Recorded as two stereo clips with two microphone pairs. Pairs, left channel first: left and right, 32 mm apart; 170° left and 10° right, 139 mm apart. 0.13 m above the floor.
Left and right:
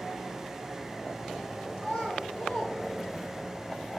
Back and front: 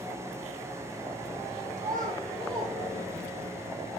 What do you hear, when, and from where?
1.8 s a child speaking: 55° left, 3.5 m; by 3.5 s 5° left, 2.5 m